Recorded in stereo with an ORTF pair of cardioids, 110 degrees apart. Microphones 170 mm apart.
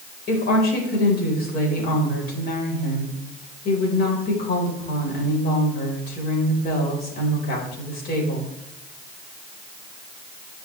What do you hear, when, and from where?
0.3 s a woman speaking: 65° left, 3.5 m